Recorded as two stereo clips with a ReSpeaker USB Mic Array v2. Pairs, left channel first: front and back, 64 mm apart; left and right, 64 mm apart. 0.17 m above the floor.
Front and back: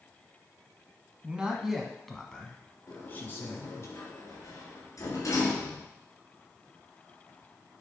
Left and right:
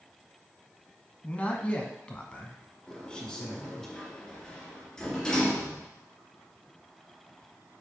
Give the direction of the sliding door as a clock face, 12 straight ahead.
11 o'clock.